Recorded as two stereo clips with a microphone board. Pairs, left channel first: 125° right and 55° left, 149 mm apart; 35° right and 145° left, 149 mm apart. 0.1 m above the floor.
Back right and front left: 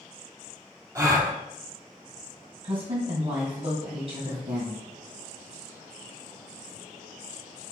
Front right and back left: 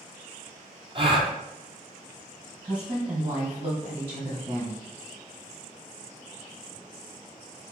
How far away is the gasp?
About 0.6 m.